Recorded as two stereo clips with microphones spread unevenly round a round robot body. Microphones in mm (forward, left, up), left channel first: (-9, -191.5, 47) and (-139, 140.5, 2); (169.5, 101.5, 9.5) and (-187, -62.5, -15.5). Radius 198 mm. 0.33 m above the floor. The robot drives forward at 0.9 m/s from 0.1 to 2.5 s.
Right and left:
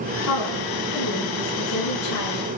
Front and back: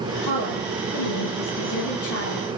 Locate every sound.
0.2 s a woman speaking: 20° right, 8 m; by 2.6 s 25° right, 6 m